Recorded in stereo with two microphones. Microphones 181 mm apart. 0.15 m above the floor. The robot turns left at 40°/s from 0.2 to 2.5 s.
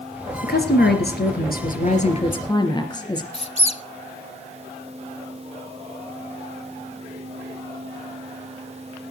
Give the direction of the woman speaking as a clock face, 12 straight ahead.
8 o'clock.